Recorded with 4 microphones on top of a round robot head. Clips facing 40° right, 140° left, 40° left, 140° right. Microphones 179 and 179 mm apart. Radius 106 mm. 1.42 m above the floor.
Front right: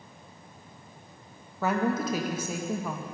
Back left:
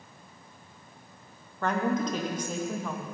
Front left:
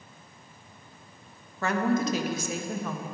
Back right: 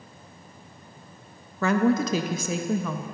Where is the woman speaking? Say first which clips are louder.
Front right 1 dB, back right 4 dB; 125° right, 0.6 m.